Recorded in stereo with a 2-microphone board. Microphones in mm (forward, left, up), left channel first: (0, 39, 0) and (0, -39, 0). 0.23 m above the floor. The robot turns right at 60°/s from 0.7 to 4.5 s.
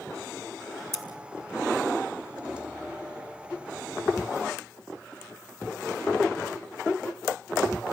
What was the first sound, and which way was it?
Scissors, 40° right (ahead or behind).